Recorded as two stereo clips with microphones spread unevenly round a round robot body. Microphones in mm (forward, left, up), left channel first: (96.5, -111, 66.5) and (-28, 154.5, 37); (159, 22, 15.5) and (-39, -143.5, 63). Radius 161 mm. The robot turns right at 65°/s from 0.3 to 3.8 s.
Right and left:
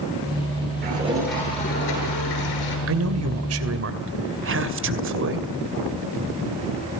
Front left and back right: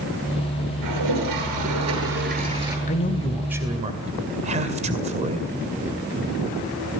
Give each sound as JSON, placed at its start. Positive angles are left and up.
{"t": 0.8, "sound": "a toilet flushing", "azimuth_deg": 175, "distance_m": 8.0}
{"t": 2.9, "sound": "a man speaking", "azimuth_deg": 90, "distance_m": 2.5}